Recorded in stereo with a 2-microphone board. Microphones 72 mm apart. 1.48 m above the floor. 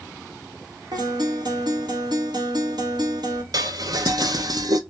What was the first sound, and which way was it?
A guitar, 70° right (ahead or behind).